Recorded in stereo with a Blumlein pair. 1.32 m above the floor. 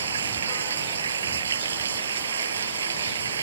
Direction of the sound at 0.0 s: 70° right.